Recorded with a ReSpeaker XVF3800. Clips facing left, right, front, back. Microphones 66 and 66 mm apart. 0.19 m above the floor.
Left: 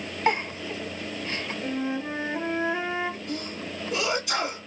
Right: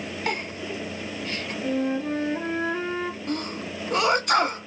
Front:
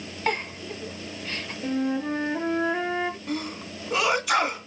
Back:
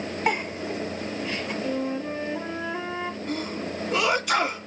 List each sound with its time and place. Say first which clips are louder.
0.3 s a giggle: left 5 dB, back 1 dB; 110° left, 1.0 m
1.6 s a flute: right 5 dB, front 5 dB; 25° left, 2.5 m
3.3 s a sneeze: right 3 dB, back 2 dB; 90° right, 1.4 m